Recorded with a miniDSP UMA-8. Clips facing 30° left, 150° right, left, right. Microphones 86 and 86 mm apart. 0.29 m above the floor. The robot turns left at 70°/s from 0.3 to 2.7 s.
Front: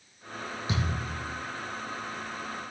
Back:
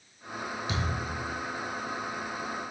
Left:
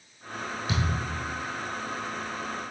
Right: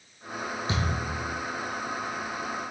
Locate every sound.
0.7 s a thud: 35° right, 3.5 m; by 1.4 s 85° right, 3.5 m